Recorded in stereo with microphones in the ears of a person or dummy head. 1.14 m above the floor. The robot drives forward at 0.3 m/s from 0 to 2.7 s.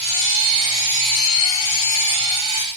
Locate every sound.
Only background noise.